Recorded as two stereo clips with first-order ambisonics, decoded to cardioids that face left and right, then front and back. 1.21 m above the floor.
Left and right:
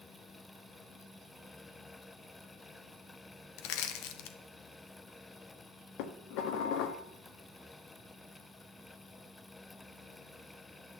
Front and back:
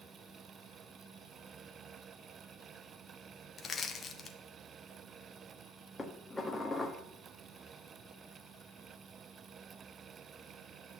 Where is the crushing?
70° left, 1.0 m.